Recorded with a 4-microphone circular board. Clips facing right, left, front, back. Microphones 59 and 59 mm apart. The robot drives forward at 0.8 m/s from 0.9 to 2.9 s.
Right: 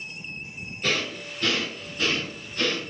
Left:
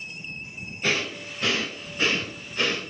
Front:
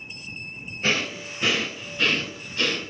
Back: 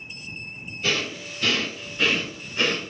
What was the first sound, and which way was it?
Breathing, 20° left.